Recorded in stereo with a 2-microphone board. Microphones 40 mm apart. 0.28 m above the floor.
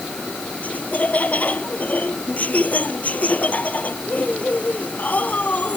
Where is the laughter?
40° left (ahead or behind).